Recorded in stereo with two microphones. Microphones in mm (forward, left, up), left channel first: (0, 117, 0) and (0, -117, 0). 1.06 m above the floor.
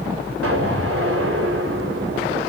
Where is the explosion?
70° right (ahead or behind), 4 m.